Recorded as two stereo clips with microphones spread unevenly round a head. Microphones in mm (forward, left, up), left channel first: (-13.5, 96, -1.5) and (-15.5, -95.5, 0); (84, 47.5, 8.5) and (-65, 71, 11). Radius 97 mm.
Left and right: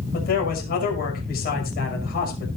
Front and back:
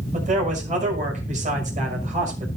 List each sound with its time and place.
0.1 s a man speaking: 135° left, 6 m